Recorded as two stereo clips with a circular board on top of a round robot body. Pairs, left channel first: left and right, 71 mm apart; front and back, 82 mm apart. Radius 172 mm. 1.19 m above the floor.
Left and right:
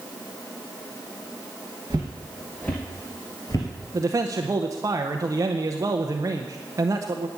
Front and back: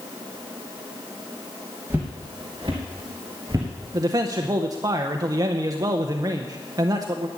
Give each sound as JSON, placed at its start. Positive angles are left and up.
{"t": 1.9, "sound": "footsteps", "azimuth_deg": -135, "distance_m": 1.2}
{"t": 3.9, "sound": "a man speaking", "azimuth_deg": -135, "distance_m": 0.7}